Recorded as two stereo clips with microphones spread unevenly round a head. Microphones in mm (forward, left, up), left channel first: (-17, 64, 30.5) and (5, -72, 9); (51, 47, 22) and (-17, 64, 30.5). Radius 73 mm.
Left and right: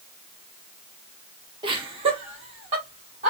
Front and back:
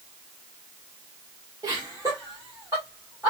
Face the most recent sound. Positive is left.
turn(degrees=-125)